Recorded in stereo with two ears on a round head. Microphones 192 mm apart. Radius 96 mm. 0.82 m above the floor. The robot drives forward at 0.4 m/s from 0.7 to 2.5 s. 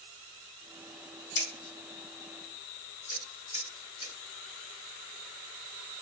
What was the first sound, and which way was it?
Scissors, 55° left (ahead or behind).